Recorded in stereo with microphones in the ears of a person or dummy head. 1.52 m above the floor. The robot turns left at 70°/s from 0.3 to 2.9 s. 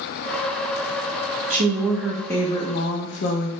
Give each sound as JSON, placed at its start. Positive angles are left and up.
{"t": 1.5, "sound": "a woman speaking", "azimuth_deg": -140, "distance_m": 0.6}